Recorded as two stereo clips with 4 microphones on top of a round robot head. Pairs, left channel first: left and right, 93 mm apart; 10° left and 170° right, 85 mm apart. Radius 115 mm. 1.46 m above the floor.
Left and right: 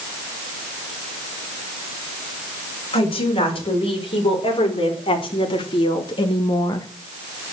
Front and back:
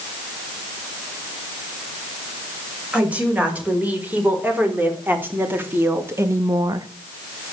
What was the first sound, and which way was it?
A woman speaking, 115° left.